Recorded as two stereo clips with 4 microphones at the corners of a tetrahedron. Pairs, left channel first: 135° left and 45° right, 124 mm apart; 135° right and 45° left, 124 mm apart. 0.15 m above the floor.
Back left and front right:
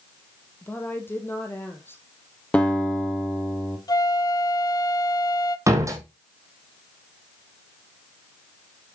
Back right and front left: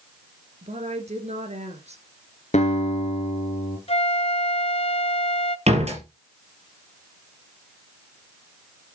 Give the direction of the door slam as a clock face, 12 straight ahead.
11 o'clock.